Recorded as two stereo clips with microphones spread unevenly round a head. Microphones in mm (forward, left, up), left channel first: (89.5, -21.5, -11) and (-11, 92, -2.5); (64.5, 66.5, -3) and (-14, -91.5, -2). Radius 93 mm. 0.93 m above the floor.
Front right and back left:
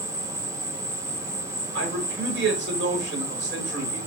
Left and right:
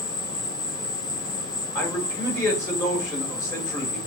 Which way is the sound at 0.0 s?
80° left.